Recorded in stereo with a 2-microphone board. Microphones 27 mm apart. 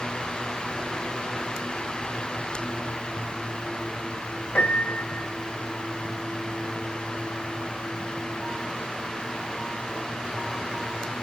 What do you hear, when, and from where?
4.5 s a piano: 70° left (ahead or behind), 2.5 m